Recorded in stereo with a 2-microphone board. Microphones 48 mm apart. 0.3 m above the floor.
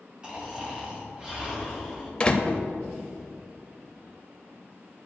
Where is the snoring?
20° right (ahead or behind), 2 m.